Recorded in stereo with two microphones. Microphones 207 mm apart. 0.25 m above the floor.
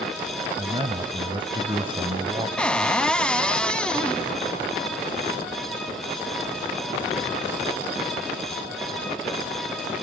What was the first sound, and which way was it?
A man speaking, 25° right (ahead or behind).